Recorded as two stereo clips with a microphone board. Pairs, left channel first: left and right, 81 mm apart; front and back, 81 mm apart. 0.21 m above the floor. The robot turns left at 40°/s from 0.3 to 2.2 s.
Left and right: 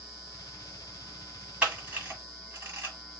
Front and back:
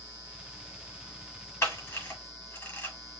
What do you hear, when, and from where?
1.6 s a camera shutter: 30° right, 1.4 m; by 3.0 s 50° right, 1.4 m